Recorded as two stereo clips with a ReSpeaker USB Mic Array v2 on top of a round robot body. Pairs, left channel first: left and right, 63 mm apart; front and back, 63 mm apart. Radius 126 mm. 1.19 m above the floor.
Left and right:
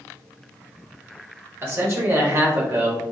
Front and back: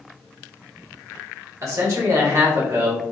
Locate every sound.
1.6 s a man speaking: 140° right, 1.1 m